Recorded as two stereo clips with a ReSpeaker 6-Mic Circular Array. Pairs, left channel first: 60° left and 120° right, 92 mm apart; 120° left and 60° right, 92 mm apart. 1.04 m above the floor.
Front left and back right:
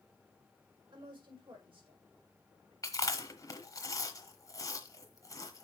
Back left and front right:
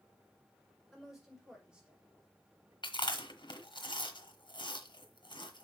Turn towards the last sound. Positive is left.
turn(degrees=105)